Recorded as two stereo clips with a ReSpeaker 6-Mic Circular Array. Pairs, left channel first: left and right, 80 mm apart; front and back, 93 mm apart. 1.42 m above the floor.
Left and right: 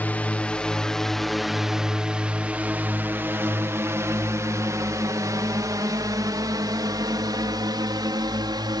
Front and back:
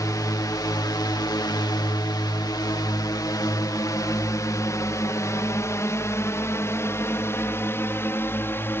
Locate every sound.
0.0 s a drone: 30° left; by 8.8 s 65° right